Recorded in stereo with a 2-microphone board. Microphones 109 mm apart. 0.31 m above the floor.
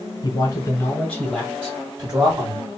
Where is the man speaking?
40° left (ahead or behind), 1.5 m; by 2.7 s 45° right (ahead or behind), 1.8 m.